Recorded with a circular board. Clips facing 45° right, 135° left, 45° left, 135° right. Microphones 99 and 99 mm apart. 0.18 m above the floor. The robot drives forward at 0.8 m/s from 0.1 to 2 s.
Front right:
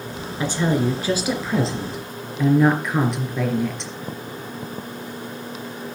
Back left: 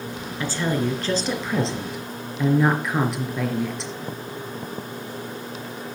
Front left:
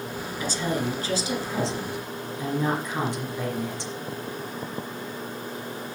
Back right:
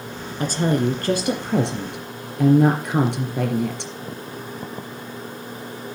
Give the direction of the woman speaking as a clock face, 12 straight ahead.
4 o'clock.